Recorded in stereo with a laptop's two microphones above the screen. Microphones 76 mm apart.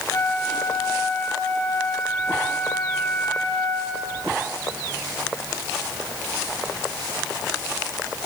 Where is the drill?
No drill in this recording.